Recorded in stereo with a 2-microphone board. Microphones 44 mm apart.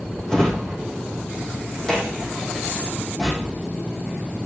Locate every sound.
0.3 s a drawer: 20° left (ahead or behind), 3 m